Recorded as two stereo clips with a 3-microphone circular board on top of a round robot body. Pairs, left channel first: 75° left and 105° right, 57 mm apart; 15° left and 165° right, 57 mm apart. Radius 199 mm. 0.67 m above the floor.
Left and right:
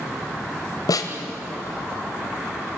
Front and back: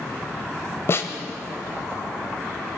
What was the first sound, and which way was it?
A snare drum, 65° left.